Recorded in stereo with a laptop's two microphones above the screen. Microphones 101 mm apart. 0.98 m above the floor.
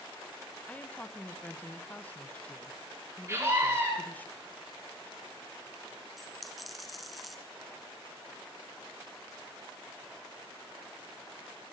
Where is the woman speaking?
15° left (ahead or behind), 0.6 m.